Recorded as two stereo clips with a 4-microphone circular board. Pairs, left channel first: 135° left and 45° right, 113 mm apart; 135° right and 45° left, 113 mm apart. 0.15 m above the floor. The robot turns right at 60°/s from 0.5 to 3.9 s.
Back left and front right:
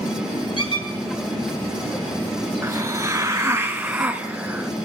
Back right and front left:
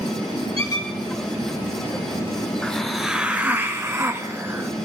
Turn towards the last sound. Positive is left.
turn(degrees=15)